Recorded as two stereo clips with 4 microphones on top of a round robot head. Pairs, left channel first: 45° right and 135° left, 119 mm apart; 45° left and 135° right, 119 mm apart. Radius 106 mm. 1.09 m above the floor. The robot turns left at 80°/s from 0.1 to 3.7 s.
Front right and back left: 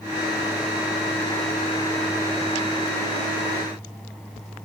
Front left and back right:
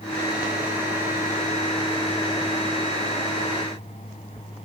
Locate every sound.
Only background noise.